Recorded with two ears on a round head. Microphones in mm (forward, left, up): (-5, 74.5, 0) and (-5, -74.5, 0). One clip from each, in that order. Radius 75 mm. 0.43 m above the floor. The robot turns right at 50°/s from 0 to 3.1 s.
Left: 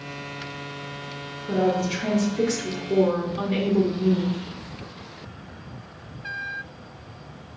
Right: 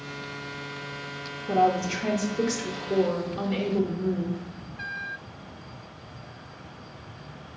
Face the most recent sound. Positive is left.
turn(degrees=5)